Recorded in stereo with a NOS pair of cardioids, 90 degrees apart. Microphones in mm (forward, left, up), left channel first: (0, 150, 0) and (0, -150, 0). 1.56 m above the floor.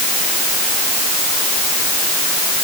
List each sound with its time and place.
Only background noise.